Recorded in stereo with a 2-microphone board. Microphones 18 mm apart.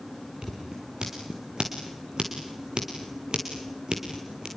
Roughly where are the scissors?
Right.